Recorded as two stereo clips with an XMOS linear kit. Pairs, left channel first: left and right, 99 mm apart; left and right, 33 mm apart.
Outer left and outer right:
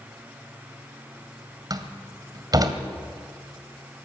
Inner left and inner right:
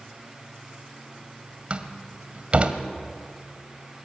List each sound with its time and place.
1.7 s a door slam: 40° right (ahead or behind), 1.8 m